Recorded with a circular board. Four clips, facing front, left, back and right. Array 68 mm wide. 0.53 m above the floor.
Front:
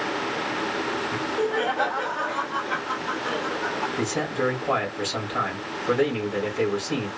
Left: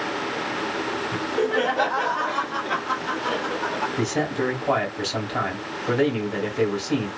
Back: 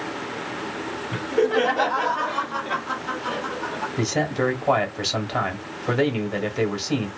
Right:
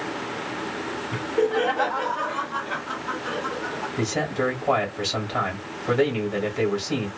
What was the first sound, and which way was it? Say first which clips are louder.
Laughter: right 2 dB, back 7 dB; straight behind.